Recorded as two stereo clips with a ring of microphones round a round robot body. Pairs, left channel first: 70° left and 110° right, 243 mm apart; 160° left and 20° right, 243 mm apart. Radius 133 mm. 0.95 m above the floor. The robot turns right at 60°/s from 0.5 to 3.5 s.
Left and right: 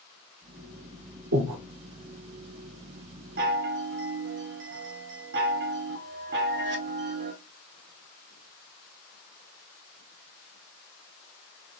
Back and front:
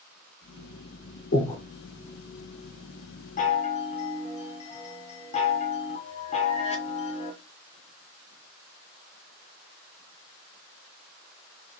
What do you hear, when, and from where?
1.3 s breathing: 150° right, 1.4 m; by 1.6 s 130° right, 1.4 m
3.4 s a chime: 150° right, 0.7 m; by 7.3 s 145° right, 0.7 m